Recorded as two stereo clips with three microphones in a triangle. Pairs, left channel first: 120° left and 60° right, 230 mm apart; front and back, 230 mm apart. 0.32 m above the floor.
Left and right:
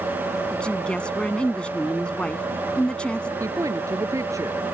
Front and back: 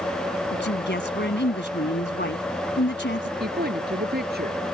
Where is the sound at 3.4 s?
135° right.